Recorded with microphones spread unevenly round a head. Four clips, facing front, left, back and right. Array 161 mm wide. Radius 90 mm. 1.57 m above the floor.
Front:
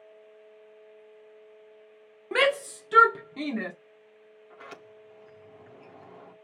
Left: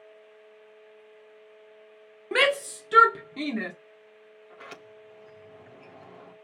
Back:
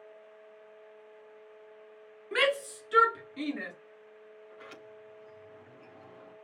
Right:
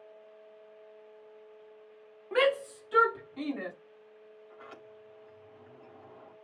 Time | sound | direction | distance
2.3 | a shout | 65° left | 1.9 m
4.5 | a sliding door | 75° left | 3 m